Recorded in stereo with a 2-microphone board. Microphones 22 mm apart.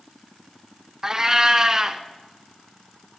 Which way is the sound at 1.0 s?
20° right (ahead or behind).